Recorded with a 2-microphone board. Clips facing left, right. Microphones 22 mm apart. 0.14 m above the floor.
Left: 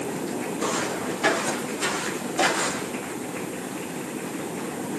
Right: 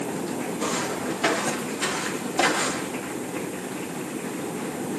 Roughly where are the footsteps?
Centre.